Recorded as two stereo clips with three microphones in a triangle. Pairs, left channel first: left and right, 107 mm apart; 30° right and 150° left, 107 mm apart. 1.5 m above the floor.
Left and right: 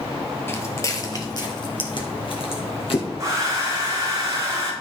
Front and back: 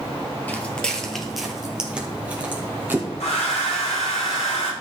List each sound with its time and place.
0.5 s footsteps: 35° left, 1.9 m; by 3.1 s 85° left, 3 m
3.2 s a hair dryer: 30° right, 3.5 m